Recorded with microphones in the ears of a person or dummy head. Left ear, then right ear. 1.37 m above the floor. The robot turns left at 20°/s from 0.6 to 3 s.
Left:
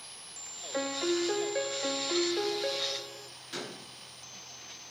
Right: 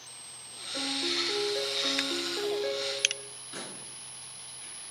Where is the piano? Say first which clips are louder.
Right 1 dB; 55° left, 1.0 m; by 3.3 s 10° left, 1.0 m.